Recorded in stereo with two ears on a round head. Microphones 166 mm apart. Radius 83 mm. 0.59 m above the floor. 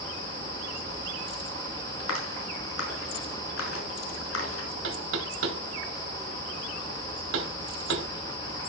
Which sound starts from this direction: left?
A clap, at 2.0 s.